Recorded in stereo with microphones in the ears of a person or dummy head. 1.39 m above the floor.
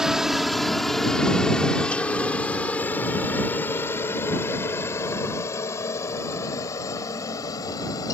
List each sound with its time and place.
0.0 s a helicopter: 5° right (ahead or behind); by 8.1 s 20° left (ahead or behind)